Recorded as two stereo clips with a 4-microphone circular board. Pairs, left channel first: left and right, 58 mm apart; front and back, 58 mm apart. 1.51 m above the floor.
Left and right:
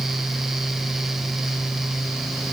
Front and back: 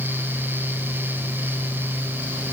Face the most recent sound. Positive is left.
No sound to turn to.